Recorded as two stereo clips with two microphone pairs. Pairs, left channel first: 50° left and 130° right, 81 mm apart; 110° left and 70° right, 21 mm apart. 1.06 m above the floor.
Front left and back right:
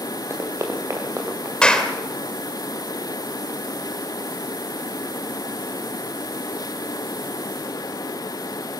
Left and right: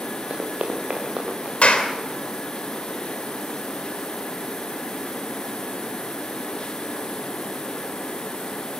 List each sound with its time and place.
0.3 s running footsteps: 75° right, 4.5 m; by 1.5 s 80° right, 6 m
1.6 s a clap: 130° left, 3 m